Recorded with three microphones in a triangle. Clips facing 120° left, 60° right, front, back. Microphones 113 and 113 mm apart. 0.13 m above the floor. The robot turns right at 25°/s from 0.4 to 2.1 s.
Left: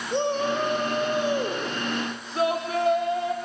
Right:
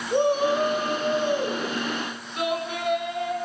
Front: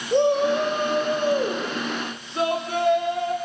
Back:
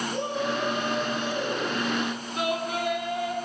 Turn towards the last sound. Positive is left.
turn(degrees=60)